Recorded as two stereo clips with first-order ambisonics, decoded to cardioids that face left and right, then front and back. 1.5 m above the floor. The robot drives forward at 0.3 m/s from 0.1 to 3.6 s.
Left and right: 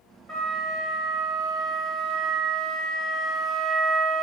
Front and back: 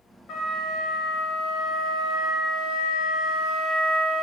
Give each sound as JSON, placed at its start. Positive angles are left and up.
{"t": 0.3, "sound": "a flute", "azimuth_deg": -15, "distance_m": 1.6}